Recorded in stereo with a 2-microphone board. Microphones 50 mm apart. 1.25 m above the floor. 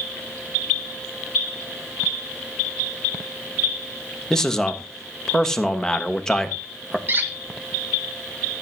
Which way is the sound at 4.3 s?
10° left (ahead or behind).